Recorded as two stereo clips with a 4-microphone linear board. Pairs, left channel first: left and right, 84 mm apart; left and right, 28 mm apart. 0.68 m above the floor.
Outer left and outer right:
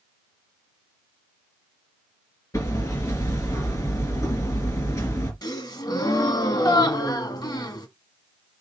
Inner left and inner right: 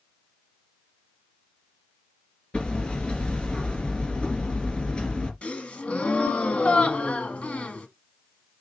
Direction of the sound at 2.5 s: 40° left (ahead or behind).